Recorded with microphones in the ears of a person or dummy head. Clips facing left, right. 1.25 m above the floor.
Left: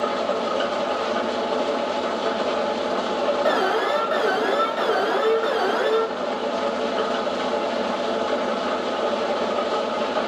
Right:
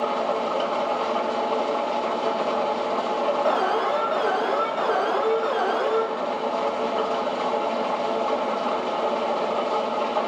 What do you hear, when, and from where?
0.0 s an engine running: 25° left (ahead or behind), 1.1 m
3.5 s an alarm: 30° left (ahead or behind), 1.1 m